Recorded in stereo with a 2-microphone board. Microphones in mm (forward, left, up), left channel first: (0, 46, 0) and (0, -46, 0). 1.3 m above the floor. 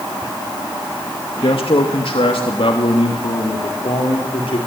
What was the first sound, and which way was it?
A man speaking, 80° left.